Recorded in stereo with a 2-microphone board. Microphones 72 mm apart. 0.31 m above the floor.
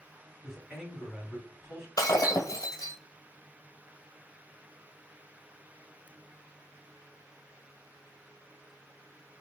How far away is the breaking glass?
About 1.3 m.